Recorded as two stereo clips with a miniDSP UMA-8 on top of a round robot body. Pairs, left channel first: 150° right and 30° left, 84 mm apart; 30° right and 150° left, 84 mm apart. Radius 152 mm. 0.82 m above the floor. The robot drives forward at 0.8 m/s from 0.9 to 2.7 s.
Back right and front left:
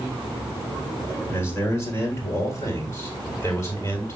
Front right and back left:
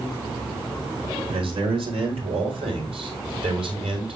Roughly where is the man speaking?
Behind left.